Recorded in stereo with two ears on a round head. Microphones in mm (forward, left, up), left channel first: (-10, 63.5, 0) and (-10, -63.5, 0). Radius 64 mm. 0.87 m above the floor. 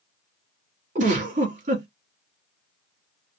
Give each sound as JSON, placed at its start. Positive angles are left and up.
{"t": 0.9, "sound": "a giggle", "side_deg": -60, "distance_m": 1.4}